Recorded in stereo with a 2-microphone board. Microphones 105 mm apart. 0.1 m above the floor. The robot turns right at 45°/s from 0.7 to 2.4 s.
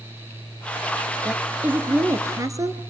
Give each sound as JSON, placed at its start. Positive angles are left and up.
{"t": 1.2, "sound": "a woman speaking", "azimuth_deg": -170, "distance_m": 1.3}